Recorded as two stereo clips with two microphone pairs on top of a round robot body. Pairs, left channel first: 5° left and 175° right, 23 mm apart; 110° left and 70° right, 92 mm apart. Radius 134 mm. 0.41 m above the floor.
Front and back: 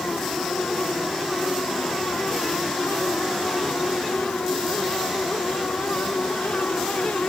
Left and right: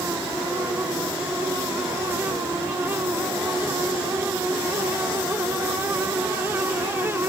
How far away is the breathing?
I don't hear breathing.